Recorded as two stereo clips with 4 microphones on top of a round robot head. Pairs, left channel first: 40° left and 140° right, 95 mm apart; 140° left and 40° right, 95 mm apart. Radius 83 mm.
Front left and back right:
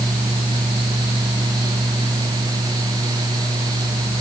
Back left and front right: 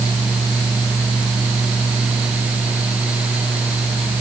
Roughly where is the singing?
I don't hear singing.